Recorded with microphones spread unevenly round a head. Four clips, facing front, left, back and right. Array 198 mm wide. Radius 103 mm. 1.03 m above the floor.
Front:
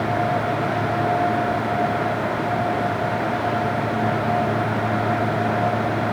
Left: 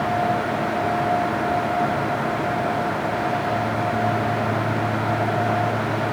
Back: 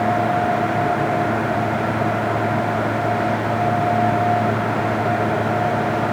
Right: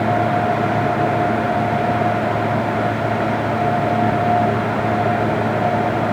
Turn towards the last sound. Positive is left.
No sound to turn to.